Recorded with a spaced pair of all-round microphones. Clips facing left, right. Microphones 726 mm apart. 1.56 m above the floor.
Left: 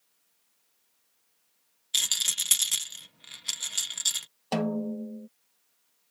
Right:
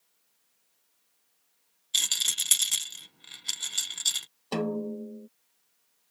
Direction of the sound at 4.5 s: 25° left (ahead or behind).